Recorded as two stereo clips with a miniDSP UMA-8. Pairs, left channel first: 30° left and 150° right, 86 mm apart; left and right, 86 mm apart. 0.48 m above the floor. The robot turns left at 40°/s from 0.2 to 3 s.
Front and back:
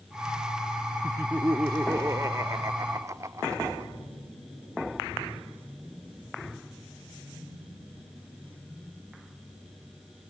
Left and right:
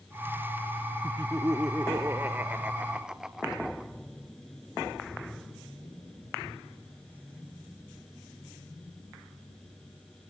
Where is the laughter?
85° right, 0.8 m; by 3.9 s 165° right, 0.8 m.